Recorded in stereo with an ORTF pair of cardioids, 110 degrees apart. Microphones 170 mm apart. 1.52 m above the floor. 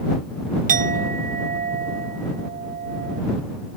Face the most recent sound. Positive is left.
turn(degrees=-55)